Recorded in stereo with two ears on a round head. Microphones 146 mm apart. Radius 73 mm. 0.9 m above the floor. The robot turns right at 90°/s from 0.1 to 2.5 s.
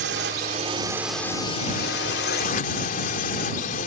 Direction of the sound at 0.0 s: 90° right.